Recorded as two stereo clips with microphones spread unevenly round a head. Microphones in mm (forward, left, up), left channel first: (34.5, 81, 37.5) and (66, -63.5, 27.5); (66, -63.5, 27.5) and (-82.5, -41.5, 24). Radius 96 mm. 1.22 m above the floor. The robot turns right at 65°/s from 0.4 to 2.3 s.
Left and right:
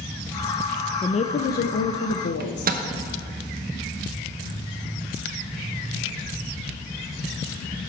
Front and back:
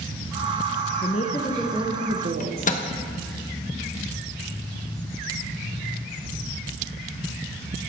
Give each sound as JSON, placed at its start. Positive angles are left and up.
{"t": 1.0, "sound": "a woman speaking", "azimuth_deg": 40, "distance_m": 0.6}
{"t": 2.4, "sound": "a microwave", "azimuth_deg": -50, "distance_m": 1.0}